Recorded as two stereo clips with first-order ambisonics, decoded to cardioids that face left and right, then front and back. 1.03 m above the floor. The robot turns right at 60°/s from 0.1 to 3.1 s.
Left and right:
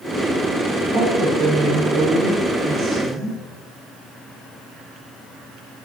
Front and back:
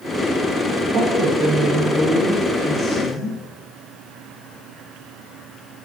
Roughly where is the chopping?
No chopping in this recording.